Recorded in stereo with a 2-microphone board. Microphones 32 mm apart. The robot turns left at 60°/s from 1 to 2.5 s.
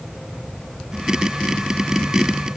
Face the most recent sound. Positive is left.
No sound to turn to.